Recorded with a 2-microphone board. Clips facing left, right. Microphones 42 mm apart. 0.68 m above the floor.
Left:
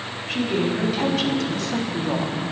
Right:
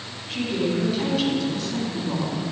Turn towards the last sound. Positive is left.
turn(degrees=65)  # may be behind; listen again after turning